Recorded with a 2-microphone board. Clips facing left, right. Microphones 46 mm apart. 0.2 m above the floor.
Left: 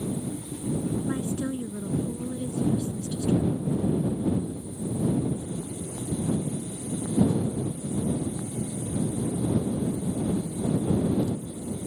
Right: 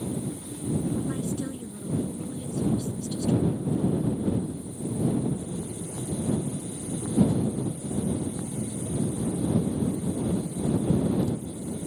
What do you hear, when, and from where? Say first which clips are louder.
1.1 s a woman speaking: left 2 dB; 25° left (ahead or behind)